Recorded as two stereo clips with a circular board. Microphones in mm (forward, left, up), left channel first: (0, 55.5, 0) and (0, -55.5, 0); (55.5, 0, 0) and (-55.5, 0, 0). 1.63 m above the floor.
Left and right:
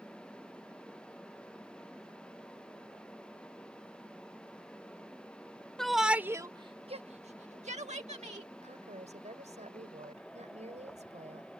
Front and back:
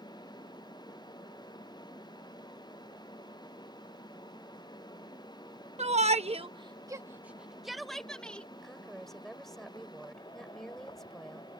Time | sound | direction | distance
5.8 | a shout | 175° left | ?
8.6 | a woman speaking | 85° right | ?